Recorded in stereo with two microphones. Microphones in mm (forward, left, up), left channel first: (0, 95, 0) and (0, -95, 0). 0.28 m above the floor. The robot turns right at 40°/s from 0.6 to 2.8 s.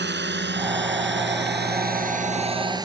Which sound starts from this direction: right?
A drone, at 0.0 s.